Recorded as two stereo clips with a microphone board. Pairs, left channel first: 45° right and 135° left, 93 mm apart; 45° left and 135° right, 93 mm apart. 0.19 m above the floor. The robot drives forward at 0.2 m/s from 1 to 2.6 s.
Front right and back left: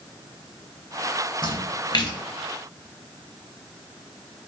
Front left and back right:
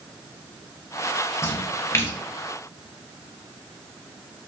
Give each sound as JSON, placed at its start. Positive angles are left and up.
{"t": 1.4, "sound": "a splash", "azimuth_deg": -10, "distance_m": 0.6}